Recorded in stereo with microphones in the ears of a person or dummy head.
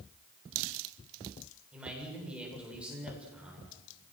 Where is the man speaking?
5° right (ahead or behind), 7.5 m.